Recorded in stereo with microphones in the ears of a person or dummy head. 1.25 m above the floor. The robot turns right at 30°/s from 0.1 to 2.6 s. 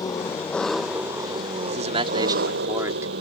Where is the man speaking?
45° right (ahead or behind); by 3.1 s 20° right (ahead or behind).